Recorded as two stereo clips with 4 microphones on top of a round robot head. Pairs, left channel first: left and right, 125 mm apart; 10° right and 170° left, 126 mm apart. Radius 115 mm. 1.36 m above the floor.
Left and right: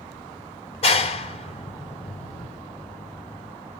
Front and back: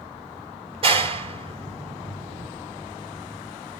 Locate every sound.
0.8 s a clap: 125° left, 3.5 m